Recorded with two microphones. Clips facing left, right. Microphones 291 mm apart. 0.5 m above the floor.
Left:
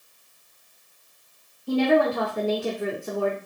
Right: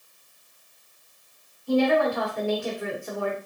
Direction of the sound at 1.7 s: 40° left (ahead or behind).